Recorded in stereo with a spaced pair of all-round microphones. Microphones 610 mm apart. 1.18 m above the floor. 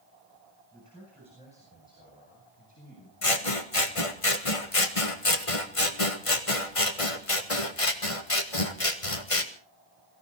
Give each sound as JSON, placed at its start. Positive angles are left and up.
{"t": 0.7, "sound": "a man speaking", "side_deg": 5, "distance_m": 8.5}
{"t": 3.2, "sound": "scissors", "side_deg": 60, "distance_m": 1.5}